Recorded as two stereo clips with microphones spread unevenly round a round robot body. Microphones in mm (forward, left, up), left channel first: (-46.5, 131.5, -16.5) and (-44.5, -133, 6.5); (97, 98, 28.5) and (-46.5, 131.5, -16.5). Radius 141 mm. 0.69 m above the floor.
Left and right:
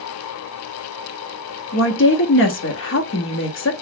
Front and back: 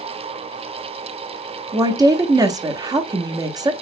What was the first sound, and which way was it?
A woman speaking, 120° left.